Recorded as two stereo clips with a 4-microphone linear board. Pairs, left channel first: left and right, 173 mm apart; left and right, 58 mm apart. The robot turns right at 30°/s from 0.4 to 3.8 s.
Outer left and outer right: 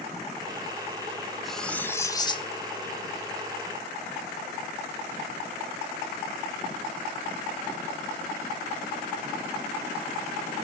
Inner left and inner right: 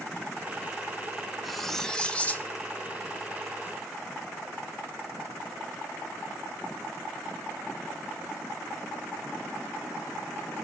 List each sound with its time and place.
1.4 s cutlery clinking: straight ahead, 0.5 m; by 2.5 s 30° left, 0.5 m